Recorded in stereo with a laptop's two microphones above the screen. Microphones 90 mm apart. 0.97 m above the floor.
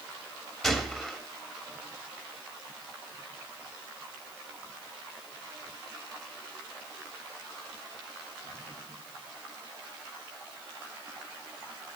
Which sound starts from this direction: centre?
A gunshot, at 0.6 s.